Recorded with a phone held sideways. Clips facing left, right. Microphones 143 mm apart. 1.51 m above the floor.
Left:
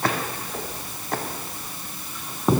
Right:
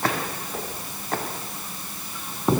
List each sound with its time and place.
Only background noise.